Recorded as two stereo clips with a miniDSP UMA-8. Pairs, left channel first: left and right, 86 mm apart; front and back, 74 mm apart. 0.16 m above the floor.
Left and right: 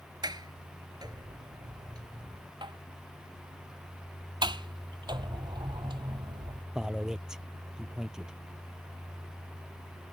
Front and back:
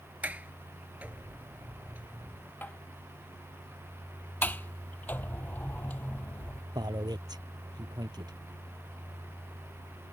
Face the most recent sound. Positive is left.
turn(degrees=-170)